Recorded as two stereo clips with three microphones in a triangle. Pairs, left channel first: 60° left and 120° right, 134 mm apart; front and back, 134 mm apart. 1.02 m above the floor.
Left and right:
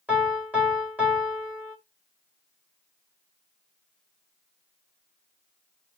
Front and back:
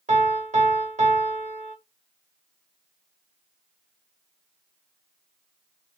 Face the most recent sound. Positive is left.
turn(degrees=165)